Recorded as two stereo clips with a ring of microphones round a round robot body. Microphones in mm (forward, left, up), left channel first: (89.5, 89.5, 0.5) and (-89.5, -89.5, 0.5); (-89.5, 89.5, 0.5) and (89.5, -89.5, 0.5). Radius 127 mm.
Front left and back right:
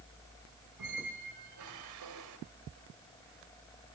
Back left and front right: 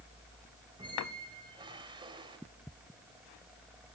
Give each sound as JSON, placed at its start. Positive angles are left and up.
{"t": 0.8, "sound": "a squeak", "azimuth_deg": -115, "distance_m": 3.5}